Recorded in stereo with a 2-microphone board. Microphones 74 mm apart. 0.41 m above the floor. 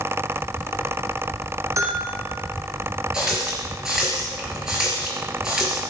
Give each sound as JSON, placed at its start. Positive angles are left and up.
{"t": 1.8, "sound": "a bell", "side_deg": -45, "distance_m": 5.5}
{"t": 3.1, "sound": "a running tap", "side_deg": -10, "distance_m": 4.5}